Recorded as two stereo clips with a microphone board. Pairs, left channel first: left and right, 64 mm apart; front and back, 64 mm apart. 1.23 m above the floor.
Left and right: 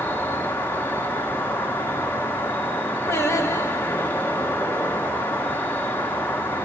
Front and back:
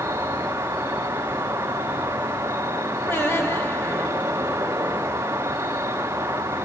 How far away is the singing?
About 1.3 m.